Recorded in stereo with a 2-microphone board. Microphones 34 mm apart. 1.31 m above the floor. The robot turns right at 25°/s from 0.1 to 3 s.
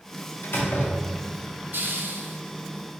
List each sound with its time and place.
0.4 s a door slam: 75° left (ahead or behind), 0.9 m; by 1.4 s 80° left, 0.9 m
1.7 s a hiss: 75° right (ahead or behind), 0.6 m; by 2.4 s 60° right (ahead or behind), 0.6 m